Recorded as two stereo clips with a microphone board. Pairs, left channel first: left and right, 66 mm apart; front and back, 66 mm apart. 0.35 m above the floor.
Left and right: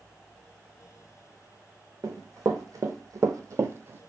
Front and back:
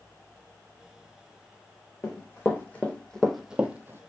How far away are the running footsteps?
About 1.1 m.